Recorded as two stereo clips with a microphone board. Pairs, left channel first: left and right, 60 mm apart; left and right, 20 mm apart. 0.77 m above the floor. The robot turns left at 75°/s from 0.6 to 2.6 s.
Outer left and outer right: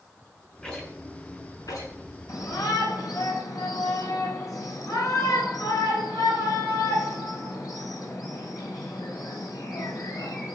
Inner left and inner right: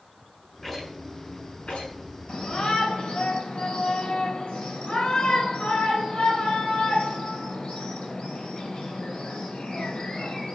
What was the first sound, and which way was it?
A rattle, 5° left (ahead or behind).